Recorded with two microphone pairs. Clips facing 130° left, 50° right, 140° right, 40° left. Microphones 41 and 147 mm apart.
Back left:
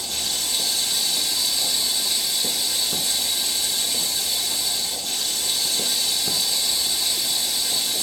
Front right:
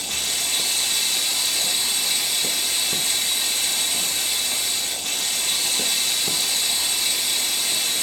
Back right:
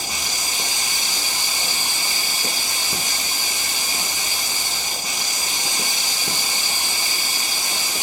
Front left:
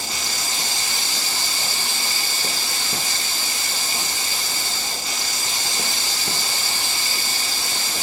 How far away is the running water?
About 0.9 m.